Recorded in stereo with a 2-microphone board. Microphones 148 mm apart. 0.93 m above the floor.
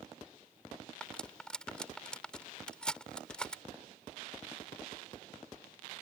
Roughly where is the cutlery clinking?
Centre.